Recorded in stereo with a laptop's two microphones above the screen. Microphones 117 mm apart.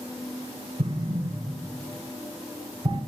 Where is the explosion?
60° right (ahead or behind), 1.6 m.